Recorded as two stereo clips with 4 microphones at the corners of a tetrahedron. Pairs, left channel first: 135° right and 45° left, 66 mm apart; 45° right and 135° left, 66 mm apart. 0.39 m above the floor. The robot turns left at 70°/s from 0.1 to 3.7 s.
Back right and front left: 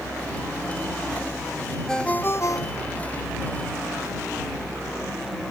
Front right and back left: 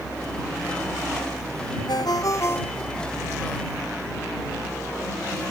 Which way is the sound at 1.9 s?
50° right.